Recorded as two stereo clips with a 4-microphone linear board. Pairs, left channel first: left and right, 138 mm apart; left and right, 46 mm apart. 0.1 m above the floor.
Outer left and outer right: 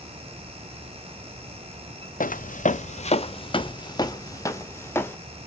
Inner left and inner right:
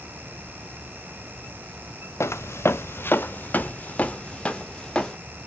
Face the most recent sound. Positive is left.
turn(degrees=15)  # may be behind; listen again after turning